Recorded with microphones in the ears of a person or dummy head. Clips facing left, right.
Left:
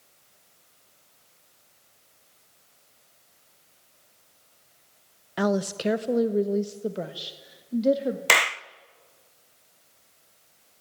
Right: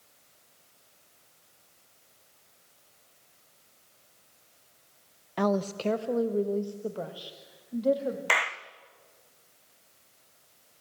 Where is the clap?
45° left (ahead or behind), 0.6 m.